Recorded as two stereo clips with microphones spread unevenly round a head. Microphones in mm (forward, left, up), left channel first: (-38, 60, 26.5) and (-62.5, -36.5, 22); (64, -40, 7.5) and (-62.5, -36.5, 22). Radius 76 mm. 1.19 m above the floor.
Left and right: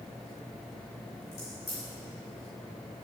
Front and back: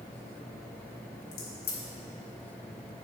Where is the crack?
5° left, 1.6 m.